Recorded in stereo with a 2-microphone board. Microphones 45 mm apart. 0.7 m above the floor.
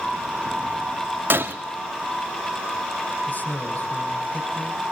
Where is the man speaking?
45° left (ahead or behind), 3.5 m.